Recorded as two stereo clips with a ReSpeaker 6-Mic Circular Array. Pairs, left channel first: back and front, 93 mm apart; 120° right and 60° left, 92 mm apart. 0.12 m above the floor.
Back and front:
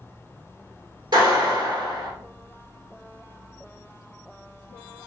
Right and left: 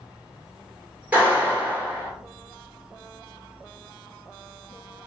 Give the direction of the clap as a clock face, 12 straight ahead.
12 o'clock.